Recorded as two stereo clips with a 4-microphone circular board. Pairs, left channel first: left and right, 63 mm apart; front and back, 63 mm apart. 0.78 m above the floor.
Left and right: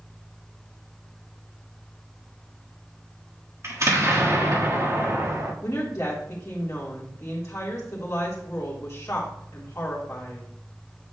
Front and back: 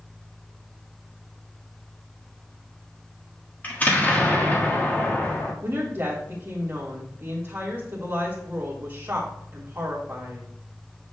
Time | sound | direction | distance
3.6 | an explosion | 60° right | 1.4 m
5.6 | a woman speaking | 135° left | 1.5 m